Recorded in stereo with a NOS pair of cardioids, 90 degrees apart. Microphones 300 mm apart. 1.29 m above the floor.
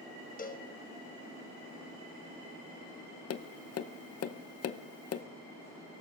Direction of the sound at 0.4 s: 25° left.